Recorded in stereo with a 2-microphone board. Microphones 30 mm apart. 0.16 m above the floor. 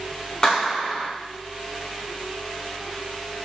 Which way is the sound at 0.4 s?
25° left (ahead or behind).